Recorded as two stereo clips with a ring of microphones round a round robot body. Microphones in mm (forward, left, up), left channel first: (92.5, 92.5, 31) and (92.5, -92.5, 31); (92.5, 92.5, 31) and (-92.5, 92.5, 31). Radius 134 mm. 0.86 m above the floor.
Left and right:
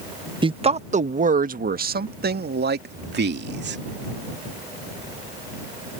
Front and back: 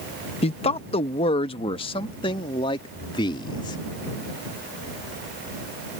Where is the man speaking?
40° right; by 3.8 s 70° right.